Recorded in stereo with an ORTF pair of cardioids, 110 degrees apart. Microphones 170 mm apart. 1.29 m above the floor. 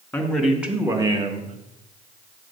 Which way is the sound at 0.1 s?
5° left.